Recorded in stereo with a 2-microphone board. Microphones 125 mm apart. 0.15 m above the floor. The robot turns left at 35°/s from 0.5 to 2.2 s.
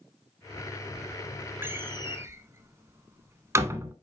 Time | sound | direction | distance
1.6 | a door slam | 20° right (ahead or behind) | 0.7 m